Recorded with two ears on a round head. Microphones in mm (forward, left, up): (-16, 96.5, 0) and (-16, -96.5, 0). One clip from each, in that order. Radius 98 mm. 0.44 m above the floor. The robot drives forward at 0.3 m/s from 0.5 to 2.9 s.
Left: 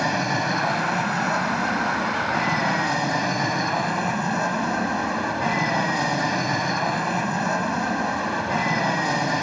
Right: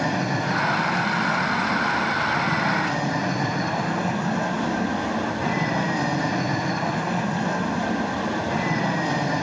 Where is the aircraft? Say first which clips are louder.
Left 2 dB; 35° left (ahead or behind).